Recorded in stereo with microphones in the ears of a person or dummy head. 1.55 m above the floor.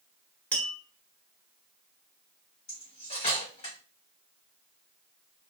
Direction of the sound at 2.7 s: 25° left (ahead or behind).